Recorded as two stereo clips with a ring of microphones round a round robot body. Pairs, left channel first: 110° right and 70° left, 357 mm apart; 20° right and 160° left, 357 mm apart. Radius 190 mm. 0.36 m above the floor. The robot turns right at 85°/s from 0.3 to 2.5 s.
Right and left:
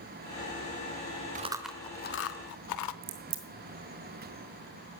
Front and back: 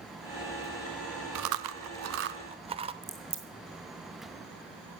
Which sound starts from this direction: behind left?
Chewing, at 1.4 s.